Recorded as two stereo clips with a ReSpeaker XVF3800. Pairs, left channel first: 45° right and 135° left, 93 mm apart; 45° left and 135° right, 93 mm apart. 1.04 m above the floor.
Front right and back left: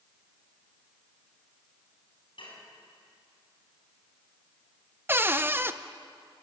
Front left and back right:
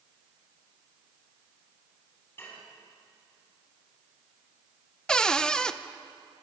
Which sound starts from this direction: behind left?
A cupboard door, at 5.1 s.